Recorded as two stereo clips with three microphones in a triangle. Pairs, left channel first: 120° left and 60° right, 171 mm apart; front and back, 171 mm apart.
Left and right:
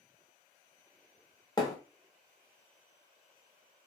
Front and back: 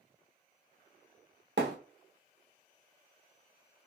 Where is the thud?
175° right, 0.8 m.